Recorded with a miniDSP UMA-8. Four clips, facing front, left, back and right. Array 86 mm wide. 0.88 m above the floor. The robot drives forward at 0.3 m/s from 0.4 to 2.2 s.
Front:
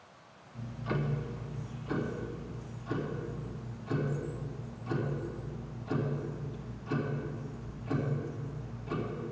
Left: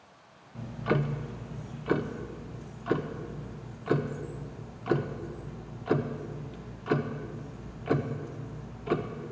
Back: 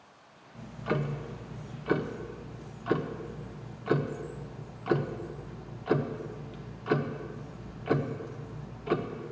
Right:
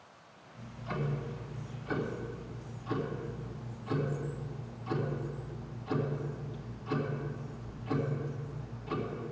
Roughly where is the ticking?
Left.